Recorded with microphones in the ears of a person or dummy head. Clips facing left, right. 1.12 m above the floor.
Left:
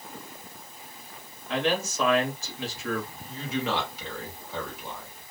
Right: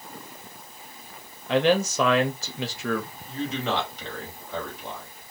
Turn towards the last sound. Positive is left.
turn(degrees=0)  # may be behind; listen again after turning